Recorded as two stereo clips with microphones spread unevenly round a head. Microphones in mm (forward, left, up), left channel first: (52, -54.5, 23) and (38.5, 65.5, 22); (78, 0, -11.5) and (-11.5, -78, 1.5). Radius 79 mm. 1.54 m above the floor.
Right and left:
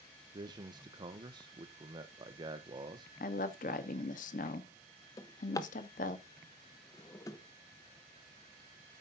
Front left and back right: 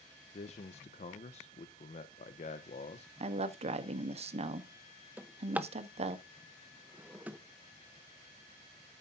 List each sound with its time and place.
0.3 s a man speaking: 55° left, 0.7 m
3.2 s a woman speaking: 110° right, 1.0 m
5.2 s a drawer: 95° right, 0.7 m